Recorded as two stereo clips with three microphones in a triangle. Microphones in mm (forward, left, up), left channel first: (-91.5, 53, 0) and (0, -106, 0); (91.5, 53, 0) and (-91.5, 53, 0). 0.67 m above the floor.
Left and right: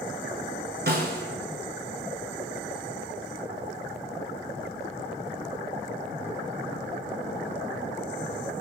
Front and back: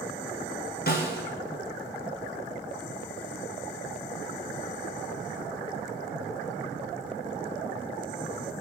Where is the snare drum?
30° right, 1.8 m.